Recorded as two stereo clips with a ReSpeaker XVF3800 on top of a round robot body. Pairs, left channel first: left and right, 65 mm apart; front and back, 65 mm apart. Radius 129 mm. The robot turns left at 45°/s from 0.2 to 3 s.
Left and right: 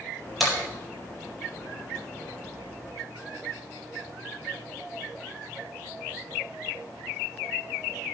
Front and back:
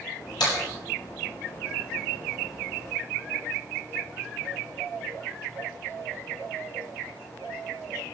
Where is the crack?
Straight ahead, 7.5 m; by 0.6 s 5° right, 7.5 m.